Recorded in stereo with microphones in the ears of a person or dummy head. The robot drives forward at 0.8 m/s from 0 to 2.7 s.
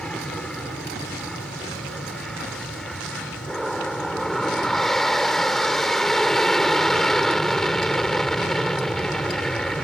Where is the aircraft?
5° left (ahead or behind).